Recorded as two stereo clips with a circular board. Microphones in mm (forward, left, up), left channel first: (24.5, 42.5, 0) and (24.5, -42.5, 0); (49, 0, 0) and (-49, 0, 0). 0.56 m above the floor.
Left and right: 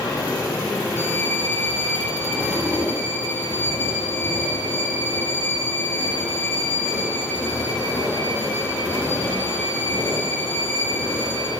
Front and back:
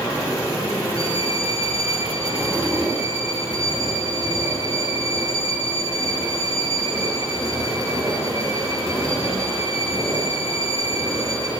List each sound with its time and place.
1.0 s a violin: 25° left, 9.5 m